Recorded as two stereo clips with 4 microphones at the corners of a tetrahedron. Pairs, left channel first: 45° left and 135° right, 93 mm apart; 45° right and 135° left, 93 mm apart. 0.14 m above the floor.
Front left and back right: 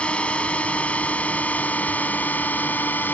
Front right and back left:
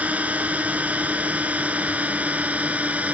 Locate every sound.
0.0 s a drone: 95° left; by 3.1 s 80° left